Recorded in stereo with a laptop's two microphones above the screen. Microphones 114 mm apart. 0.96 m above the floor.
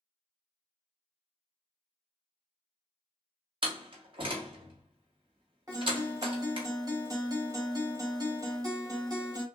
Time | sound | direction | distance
3.6 | a door slam | 45° right (ahead or behind) | 1.4 m
5.7 | a guitar | 35° right (ahead or behind) | 1.2 m